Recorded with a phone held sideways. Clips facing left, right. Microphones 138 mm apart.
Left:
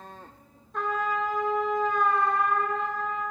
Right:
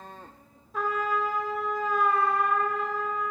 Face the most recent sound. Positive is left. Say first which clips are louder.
# even
turn(degrees=-5)  # may be behind; listen again after turning